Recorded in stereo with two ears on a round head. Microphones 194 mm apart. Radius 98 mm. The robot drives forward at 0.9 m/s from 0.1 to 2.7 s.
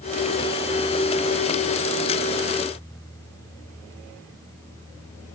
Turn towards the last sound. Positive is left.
No sound to turn to.